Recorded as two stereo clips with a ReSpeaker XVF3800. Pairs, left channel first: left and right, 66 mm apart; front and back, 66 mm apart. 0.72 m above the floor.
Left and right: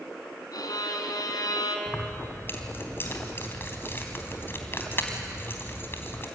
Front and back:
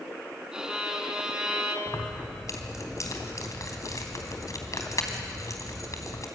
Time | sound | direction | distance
0.5 | a violin | 100° left | 3 m
1.9 | keys jangling | 35° left | 3 m